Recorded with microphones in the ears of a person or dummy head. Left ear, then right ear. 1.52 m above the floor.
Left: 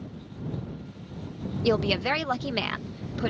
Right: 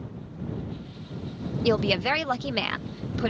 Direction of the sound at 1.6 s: Centre (ahead or behind).